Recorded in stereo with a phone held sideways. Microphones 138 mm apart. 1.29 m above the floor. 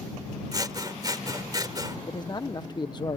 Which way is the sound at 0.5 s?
30° right (ahead or behind).